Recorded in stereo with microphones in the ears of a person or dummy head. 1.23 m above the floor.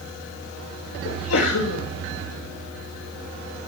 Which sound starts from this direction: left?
A sneeze, at 1.1 s.